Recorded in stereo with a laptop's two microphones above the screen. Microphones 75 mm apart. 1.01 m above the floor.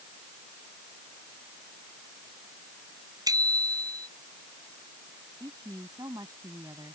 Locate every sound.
3.3 s a bicycle bell: 55° right (ahead or behind)
5.4 s a woman speaking: 55° right (ahead or behind)